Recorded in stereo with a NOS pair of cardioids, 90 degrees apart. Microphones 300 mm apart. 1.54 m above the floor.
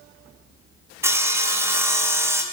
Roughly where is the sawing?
Ahead.